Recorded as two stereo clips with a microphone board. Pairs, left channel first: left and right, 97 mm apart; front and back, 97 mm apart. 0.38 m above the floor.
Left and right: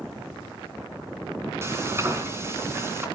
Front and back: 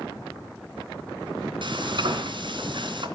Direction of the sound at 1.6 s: 150° right.